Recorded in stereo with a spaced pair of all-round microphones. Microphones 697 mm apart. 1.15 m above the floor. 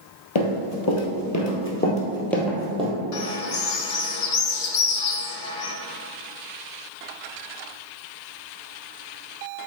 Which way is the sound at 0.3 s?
45° left (ahead or behind).